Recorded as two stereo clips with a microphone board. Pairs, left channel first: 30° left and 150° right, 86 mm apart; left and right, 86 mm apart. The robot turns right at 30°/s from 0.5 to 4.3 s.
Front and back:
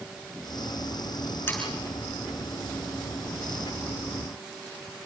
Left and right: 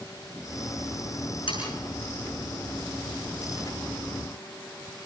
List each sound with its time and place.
1.5 s sawing: 95° left, 7.5 m; by 1.7 s 100° left, 7.5 m